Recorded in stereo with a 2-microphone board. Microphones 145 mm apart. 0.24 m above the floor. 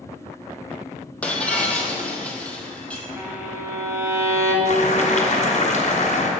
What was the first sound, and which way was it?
Breaking glass, 10° left (ahead or behind).